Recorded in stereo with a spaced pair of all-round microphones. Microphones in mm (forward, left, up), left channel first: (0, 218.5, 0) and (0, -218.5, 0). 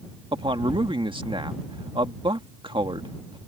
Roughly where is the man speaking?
Centre.